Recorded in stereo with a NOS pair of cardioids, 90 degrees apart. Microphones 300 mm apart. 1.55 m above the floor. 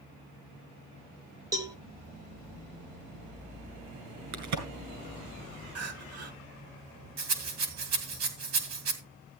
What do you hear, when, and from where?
1.5 s a cowbell: 10° right, 1.6 m
4.3 s a crack: 65° right, 4 m
5.8 s crying: 50° right, 2 m
7.2 s a rattle: 55° right, 2.5 m